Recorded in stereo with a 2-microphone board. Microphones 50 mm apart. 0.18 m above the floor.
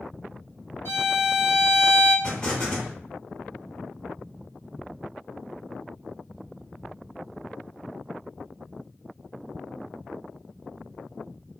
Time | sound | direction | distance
0.8 | a violin | 55° left (ahead or behind) | 1.5 m
2.2 | an explosion | 20° left (ahead or behind) | 1.5 m